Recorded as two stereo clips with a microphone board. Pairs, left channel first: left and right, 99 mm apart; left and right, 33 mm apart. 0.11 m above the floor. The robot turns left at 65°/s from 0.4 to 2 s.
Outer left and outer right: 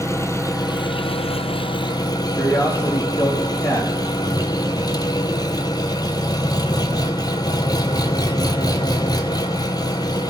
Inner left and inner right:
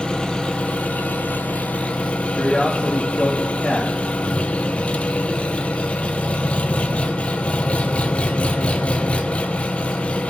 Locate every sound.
0.0 s an engine running: 150° left, 1.2 m; by 10.3 s 45° left, 1.2 m
2.3 s a man speaking: 25° left (ahead or behind), 4 m